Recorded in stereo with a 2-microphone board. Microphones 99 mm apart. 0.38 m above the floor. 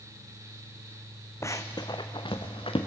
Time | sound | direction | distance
1.4 | running footsteps | 30° left (ahead or behind) | 1.7 m